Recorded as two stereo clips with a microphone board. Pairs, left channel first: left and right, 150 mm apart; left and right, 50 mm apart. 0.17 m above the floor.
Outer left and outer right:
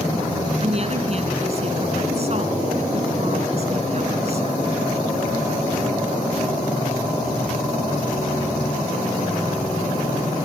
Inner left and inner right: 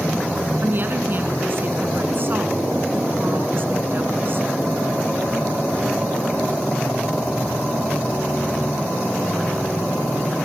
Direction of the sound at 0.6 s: 45° right (ahead or behind).